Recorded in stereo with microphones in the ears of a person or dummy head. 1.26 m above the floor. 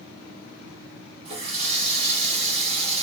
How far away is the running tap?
About 1.1 m.